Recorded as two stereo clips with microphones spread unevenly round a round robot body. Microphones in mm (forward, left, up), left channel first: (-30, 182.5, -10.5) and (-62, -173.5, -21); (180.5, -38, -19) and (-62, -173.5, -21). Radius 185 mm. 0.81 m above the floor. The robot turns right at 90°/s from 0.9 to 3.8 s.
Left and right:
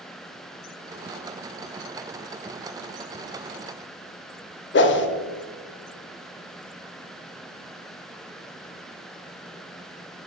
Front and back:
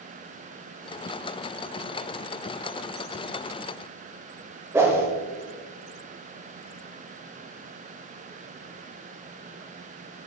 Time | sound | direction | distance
4.7 | a whoosh | 130° left | 0.6 m